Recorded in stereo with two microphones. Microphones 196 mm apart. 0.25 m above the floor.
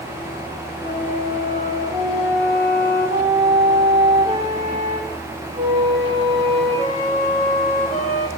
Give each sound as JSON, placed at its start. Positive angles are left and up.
{"t": 0.8, "sound": "a flute", "side_deg": -30, "distance_m": 7.0}